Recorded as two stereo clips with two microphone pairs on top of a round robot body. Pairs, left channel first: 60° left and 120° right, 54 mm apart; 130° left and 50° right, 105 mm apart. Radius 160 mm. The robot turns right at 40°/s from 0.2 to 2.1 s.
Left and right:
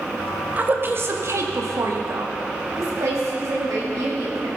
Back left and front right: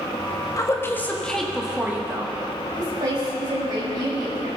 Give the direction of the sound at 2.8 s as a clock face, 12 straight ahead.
3 o'clock.